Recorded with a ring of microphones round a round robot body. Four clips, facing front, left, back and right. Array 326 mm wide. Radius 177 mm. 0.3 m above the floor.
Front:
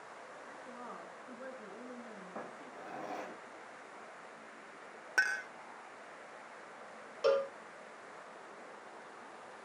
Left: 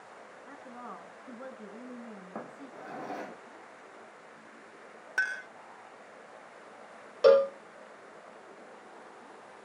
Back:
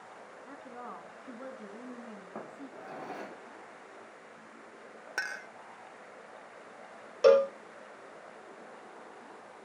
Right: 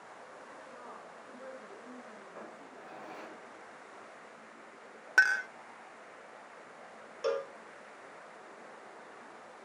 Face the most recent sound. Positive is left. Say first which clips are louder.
# left 13 dB, back 9 dB
turn(degrees=130)